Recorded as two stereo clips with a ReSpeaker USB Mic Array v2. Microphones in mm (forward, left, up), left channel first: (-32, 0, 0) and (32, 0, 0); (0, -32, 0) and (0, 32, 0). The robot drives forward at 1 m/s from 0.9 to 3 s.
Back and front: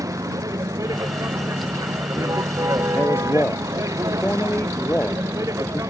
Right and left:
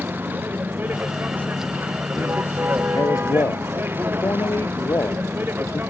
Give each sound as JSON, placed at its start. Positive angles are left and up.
{"t": 0.0, "sound": "a vehicle", "azimuth_deg": 30}
{"t": 2.9, "sound": "a man speaking", "azimuth_deg": -120}